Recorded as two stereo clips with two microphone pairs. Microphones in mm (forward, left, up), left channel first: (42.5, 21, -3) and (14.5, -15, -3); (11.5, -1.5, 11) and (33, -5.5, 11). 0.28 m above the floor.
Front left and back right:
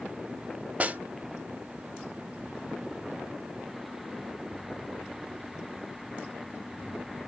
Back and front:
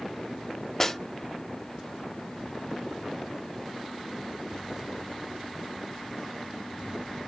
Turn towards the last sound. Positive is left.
turn(degrees=-120)